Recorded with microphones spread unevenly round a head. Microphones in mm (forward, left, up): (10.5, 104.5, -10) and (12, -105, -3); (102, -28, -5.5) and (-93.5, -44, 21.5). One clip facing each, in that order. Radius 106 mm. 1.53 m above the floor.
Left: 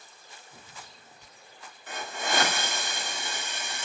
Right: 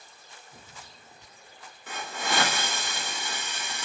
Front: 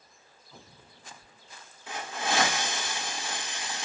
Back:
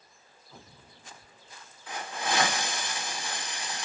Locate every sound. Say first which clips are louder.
1.9 s a hiss: even, even; 60° right, 1.4 m